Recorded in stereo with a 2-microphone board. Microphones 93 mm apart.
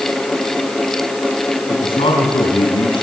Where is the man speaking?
80° left, 6 m.